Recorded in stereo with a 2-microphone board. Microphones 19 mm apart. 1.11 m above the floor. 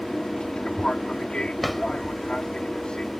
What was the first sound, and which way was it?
An aircraft, 50° left (ahead or behind).